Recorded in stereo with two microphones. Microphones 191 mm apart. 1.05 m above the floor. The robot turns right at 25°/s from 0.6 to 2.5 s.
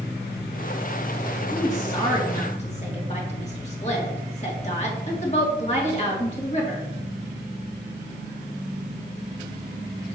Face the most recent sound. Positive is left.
turn(degrees=35)  # may be behind; listen again after turning